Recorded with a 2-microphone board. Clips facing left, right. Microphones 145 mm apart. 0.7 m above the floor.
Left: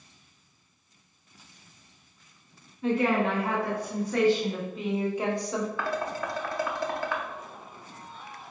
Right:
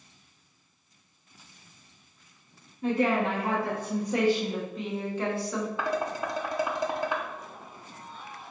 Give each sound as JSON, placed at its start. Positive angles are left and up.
{"t": 2.8, "sound": "a woman speaking", "side_deg": -40, "distance_m": 1.3}
{"t": 5.8, "sound": "dishes clattering", "side_deg": -20, "distance_m": 0.6}